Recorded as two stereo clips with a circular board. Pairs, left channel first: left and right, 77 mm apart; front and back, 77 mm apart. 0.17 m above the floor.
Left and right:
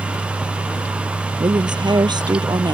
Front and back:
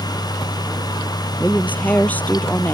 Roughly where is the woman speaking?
Right.